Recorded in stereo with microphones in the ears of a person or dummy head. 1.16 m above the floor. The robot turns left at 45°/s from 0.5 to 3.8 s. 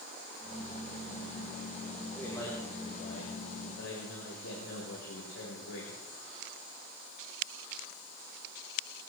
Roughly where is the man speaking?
Behind.